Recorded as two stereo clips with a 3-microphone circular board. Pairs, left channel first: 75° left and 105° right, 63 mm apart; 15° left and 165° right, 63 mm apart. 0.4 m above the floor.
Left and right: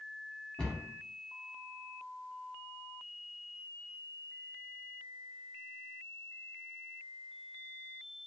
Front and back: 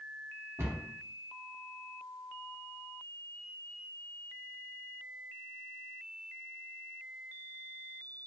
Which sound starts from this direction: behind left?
A cupboard door, at 0.6 s.